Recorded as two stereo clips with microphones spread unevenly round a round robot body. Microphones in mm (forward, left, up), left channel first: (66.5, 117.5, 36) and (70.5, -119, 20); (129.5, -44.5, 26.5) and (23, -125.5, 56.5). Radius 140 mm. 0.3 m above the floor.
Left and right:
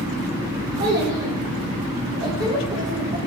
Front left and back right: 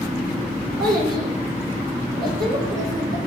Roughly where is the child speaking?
Behind.